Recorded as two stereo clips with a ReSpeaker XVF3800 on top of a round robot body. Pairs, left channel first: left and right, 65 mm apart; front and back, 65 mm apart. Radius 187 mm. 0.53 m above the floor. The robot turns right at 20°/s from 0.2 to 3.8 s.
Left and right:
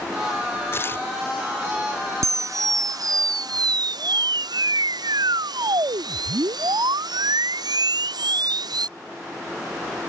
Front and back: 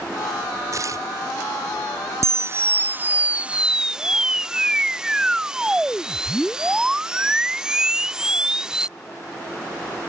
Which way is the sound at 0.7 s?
140° left.